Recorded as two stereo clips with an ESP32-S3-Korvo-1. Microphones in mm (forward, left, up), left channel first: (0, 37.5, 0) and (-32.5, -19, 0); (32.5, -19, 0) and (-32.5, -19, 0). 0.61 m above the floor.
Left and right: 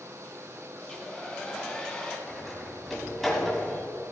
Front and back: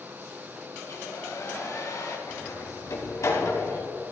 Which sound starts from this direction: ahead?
A hair dryer, at 0.8 s.